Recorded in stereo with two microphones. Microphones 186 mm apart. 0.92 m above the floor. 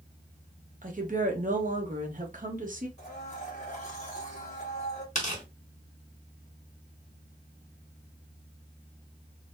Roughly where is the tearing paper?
Left.